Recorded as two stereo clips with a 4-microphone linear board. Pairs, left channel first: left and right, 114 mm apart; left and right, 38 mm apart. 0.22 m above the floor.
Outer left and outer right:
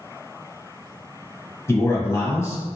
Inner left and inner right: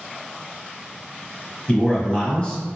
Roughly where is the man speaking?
Left.